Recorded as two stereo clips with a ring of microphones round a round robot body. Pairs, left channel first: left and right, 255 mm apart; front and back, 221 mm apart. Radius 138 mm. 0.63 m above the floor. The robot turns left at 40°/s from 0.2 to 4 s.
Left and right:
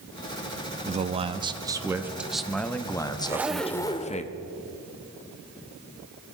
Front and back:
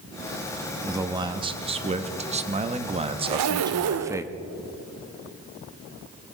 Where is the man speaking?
115° right, 0.9 m; by 4.2 s 115° left, 0.9 m.